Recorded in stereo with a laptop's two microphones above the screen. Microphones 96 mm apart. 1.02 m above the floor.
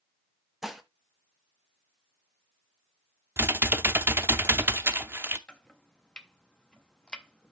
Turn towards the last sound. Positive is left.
turn(degrees=10)  # may be behind; listen again after turning